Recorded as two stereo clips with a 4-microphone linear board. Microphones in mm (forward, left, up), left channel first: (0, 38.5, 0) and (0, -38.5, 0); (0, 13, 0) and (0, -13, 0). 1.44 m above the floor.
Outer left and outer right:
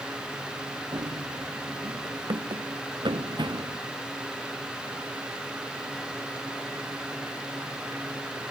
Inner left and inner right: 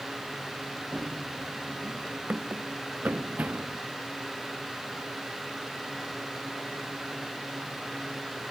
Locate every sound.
0.9 s running footsteps: 70° right (ahead or behind); by 3.8 s 75° right (ahead or behind)